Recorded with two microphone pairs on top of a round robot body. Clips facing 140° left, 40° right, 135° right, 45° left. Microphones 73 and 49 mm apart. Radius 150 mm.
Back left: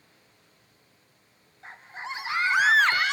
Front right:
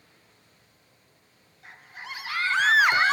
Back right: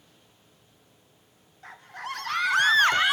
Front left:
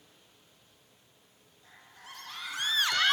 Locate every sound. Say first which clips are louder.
1.6 s a scream: back left 4 dB, back right 15 dB; 160° right, 1.7 m; by 3.1 s 45° right, 0.6 m